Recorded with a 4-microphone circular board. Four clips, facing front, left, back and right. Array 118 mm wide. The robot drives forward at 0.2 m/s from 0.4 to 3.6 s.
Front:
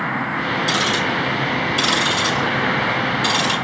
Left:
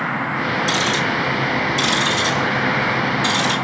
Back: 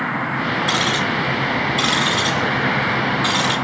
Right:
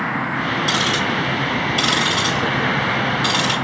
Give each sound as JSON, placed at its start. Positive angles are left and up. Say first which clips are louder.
{"t": 0.7, "sound": "ticking", "louder": "left 1 dB, even", "azimuth_deg": -165, "distance_m": 5.0}